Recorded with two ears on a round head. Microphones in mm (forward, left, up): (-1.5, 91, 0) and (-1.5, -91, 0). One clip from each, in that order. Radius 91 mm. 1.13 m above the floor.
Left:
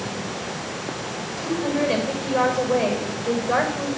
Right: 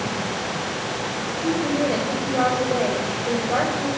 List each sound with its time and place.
1.4 s a woman speaking: 80° left, 5.5 m